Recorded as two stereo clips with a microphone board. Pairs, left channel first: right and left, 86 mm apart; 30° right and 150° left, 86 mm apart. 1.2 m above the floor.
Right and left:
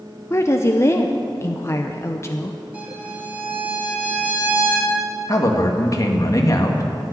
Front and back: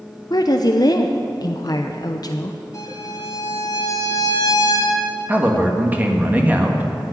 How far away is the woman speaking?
About 0.7 m.